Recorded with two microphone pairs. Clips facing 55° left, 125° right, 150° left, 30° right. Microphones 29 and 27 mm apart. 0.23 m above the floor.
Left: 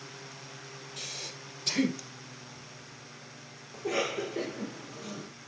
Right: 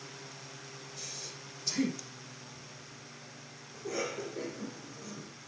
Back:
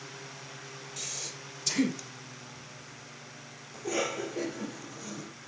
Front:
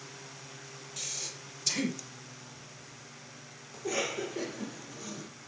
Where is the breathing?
60° left, 5 m.